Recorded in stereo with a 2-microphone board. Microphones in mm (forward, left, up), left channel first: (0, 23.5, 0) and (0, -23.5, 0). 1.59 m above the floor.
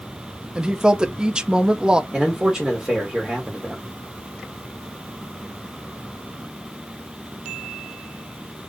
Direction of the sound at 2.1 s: 10° right (ahead or behind).